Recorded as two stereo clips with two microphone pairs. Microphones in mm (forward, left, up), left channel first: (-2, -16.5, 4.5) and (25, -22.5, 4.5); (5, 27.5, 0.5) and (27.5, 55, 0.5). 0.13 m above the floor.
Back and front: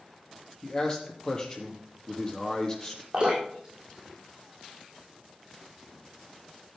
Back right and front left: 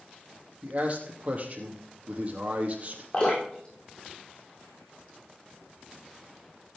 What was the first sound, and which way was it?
A man speaking, 105° left.